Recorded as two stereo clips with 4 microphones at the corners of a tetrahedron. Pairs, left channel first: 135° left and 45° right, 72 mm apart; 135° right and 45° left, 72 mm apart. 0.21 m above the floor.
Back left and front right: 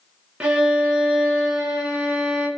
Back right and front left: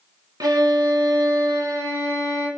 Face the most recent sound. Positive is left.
turn(degrees=30)